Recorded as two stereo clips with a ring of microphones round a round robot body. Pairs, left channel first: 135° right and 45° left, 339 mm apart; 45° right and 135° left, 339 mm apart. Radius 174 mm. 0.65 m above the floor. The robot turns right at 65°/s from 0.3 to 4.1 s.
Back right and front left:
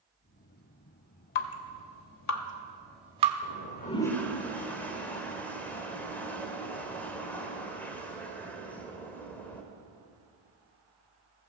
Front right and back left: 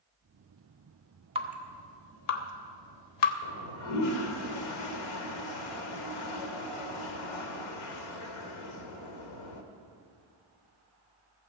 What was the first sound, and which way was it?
Dripping, 150° right.